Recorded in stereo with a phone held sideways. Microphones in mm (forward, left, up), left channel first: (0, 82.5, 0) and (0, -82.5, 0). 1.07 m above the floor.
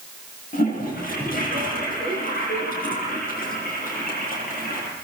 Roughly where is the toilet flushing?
Left.